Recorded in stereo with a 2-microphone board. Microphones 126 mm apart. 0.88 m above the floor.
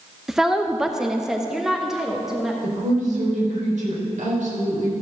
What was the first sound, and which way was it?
A woman speaking, 5° right (ahead or behind).